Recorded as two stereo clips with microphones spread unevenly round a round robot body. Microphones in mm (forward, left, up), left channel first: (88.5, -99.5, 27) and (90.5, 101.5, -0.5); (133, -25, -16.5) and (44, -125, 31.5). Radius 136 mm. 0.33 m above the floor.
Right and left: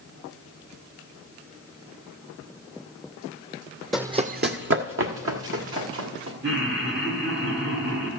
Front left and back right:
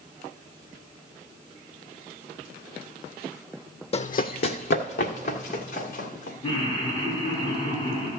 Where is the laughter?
105° left, 2.5 m.